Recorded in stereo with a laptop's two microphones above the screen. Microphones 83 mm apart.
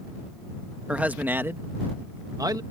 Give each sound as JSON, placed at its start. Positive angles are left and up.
{"t": 0.9, "sound": "a man speaking", "side_deg": -15}